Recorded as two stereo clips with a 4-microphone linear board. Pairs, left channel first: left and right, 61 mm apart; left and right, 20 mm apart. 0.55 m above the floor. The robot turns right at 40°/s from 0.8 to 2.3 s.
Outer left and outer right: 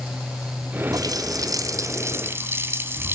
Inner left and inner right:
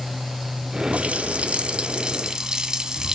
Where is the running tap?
95° right, 3 m; by 3.1 s 40° right, 3 m.